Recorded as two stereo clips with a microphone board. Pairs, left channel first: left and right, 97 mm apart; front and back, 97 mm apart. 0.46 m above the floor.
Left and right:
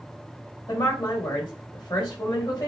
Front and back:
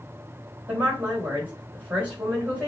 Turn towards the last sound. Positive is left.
turn(degrees=110)